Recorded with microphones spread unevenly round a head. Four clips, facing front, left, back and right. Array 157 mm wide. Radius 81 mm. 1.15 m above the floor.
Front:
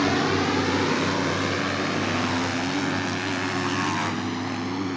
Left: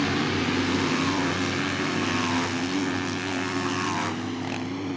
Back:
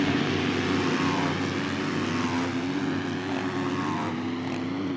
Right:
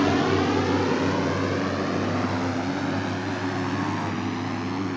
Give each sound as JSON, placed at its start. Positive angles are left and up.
{"t": 0.0, "sound": "a drone", "azimuth_deg": -70}